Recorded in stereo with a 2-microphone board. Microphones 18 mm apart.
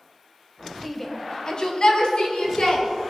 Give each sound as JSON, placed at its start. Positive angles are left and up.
{"t": 0.8, "sound": "a shout", "side_deg": 5, "distance_m": 0.9}